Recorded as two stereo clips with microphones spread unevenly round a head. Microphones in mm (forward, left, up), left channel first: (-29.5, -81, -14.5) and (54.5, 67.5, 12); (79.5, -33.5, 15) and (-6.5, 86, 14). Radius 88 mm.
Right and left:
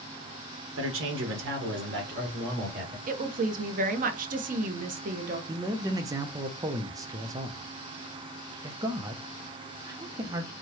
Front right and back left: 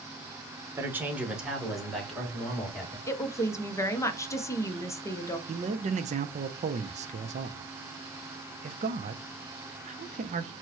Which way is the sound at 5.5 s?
135° left.